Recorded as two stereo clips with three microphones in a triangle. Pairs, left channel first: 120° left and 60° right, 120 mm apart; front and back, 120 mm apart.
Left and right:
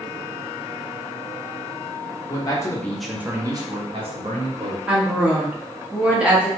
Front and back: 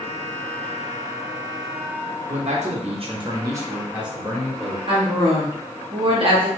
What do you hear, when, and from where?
2.3 s a man speaking: 170° left, 0.8 m; by 4.8 s 85° right, 1.3 m
4.9 s a woman speaking: 140° right, 0.9 m